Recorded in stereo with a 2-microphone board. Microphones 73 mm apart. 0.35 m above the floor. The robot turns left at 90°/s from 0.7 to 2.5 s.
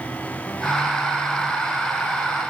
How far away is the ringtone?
No ringtone in this recording.